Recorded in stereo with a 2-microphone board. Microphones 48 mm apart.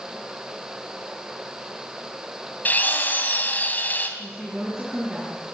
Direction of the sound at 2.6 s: 40° left (ahead or behind).